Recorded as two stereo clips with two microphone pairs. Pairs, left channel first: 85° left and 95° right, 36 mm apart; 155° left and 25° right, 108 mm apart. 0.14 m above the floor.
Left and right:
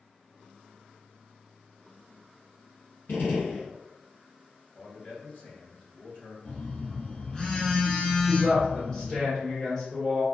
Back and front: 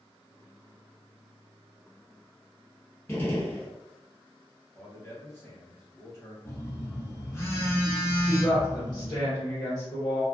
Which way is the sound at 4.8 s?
95° left.